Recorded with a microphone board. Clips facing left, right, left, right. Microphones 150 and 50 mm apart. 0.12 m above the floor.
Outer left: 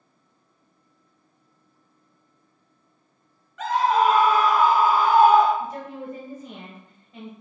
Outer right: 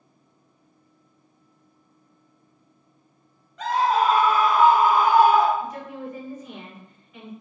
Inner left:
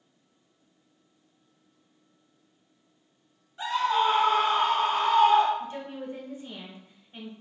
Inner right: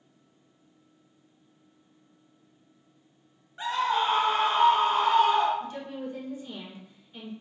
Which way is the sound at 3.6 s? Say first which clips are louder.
Outer left 1 dB, inner left 1 dB; 35° right (ahead or behind).